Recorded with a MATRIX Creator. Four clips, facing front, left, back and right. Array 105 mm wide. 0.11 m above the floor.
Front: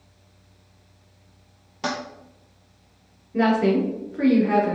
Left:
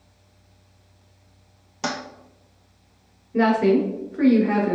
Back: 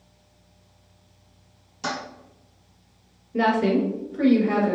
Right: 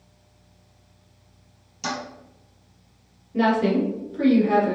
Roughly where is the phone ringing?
I don't hear a phone ringing.